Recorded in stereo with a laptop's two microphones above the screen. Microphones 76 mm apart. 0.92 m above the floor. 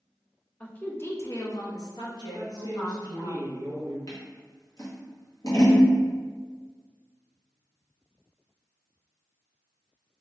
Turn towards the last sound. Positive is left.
turn(degrees=50)  # may be behind; listen again after turning